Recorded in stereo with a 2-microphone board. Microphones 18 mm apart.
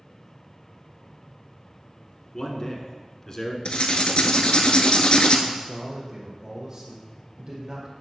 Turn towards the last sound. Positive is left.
turn(degrees=-35)  # may be behind; listen again after turning